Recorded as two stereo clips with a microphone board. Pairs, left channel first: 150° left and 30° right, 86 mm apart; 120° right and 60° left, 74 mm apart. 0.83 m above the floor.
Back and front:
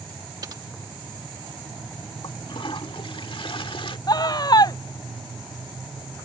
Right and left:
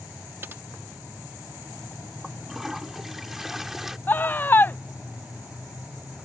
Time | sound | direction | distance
0.4 | typing on a keyboard | 5° left | ?
2.2 | a toilet flushing | 145° left | ?
4.1 | a scream | straight behind | ?